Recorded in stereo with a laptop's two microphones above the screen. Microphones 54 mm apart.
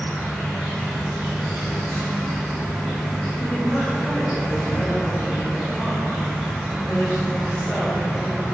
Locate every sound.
0.0 s an insect: 5° left (ahead or behind), 1.7 m
3.4 s a woman speaking: 30° left (ahead or behind), 1.8 m